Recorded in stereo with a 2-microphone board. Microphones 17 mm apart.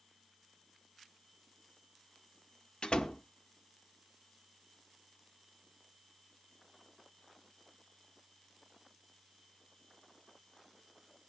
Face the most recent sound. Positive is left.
turn(degrees=65)  # may be behind; listen again after turning